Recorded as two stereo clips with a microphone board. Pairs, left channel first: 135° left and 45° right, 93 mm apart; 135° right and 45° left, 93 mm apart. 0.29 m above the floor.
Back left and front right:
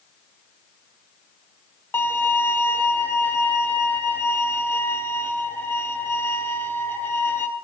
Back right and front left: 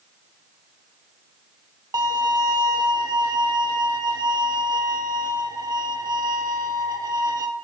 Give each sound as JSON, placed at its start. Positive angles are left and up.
{"t": 1.9, "sound": "a violin", "azimuth_deg": 75, "distance_m": 0.6}